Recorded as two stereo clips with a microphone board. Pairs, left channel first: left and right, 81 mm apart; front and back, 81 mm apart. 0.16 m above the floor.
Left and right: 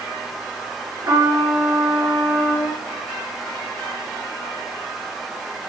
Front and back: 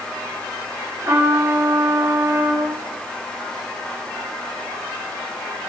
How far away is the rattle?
No rattle in this recording.